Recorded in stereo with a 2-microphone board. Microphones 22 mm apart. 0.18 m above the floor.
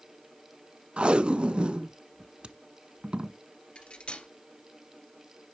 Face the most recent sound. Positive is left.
turn(degrees=60)  # may be behind; listen again after turning